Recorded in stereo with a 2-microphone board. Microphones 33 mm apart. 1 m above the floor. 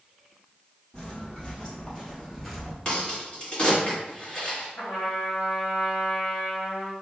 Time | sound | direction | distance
0.9 | footsteps | 25° left (ahead or behind) | 1.8 m
2.9 | a crack | 25° left (ahead or behind) | 1.7 m
4.8 | a trumpet | 55° left (ahead or behind) | 1.5 m